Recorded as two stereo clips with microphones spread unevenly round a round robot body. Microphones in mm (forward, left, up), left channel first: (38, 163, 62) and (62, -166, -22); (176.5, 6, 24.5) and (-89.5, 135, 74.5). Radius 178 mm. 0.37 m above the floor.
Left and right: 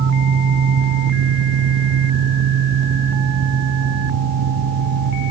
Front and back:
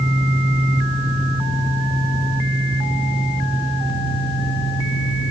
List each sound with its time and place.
Only background noise.